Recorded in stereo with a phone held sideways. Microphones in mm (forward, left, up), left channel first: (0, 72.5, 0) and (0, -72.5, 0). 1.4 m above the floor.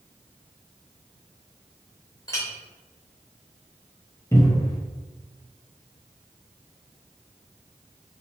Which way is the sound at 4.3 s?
20° left (ahead or behind).